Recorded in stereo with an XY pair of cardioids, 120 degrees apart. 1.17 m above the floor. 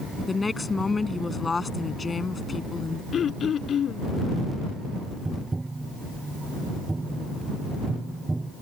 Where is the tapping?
15° right.